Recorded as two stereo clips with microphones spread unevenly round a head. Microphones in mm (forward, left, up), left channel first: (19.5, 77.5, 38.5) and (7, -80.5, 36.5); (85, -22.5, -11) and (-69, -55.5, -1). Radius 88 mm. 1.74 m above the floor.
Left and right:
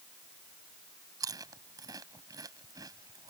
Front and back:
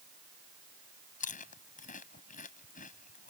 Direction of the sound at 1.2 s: 25° right.